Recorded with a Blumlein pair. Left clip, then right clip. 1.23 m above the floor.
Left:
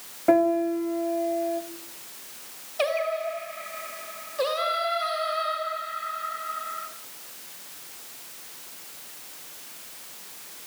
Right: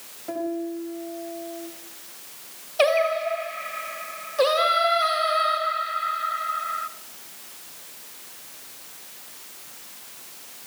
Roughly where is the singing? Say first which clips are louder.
Right 6 dB; ahead.